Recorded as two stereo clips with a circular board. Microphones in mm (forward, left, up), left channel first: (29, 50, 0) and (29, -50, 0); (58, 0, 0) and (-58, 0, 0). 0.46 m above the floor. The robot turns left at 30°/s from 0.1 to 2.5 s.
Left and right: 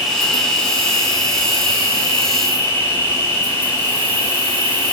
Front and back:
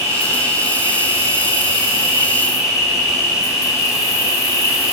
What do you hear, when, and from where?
0.0 s an insect: 175° left, 1.3 m; by 4.9 s 100° left, 1.3 m